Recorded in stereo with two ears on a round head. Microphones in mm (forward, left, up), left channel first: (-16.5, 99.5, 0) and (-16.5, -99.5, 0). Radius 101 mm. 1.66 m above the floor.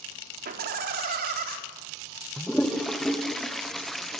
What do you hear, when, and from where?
0.5 s laughter: 45° right (ahead or behind), 4 m
2.4 s a toilet flushing: centre (ahead or behind), 1.2 m